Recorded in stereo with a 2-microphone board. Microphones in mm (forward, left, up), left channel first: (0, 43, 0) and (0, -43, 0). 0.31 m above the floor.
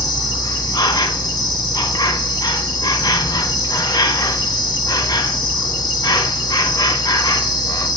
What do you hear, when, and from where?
0.0 s an insect: 50° left (ahead or behind), 1.0 m